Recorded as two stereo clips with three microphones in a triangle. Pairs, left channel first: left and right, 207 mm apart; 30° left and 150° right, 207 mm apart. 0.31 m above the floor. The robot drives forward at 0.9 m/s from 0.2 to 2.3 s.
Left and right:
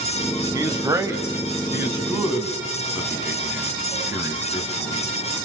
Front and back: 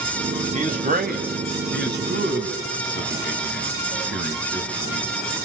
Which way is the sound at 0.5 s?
150° right.